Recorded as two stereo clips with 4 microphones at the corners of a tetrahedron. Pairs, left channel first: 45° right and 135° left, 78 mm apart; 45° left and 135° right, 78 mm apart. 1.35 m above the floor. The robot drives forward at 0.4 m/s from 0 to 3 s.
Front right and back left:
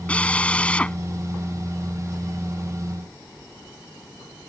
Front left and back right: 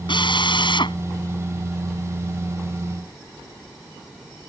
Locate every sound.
0.1 s a drill: 30° left